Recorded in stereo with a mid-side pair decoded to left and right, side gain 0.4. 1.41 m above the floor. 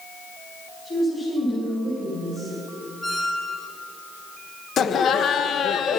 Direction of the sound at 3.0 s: 25° left.